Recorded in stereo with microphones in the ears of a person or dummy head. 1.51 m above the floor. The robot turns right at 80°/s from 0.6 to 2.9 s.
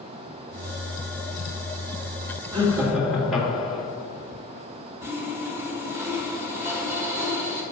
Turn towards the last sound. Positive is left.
turn(degrees=-15)  # may be behind; listen again after turning